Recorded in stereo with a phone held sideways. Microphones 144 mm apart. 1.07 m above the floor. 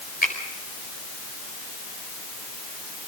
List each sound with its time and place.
0.2 s a finger snap: 85° left, 5 m